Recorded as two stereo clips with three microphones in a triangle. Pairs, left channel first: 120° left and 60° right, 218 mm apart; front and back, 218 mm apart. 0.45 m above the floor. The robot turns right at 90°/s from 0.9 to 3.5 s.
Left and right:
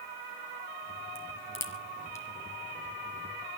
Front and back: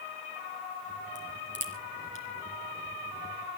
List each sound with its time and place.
1.1 s a crack: 105° left, 4 m; by 2.2 s 155° right, 4 m